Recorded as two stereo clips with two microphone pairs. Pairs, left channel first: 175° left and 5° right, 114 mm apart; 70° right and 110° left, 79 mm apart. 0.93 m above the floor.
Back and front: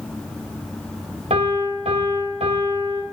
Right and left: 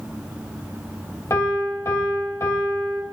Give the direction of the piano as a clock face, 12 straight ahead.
1 o'clock.